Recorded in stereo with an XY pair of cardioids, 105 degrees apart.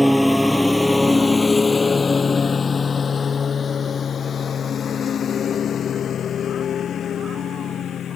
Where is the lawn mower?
5° right; by 8.2 s 55° left.